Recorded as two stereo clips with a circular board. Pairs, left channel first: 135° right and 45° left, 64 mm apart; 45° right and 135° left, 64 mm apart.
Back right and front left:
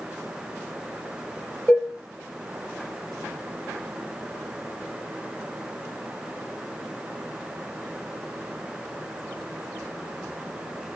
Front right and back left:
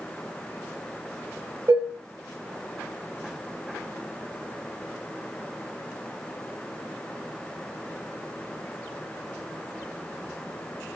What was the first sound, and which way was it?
Dishes clattering, 150° left.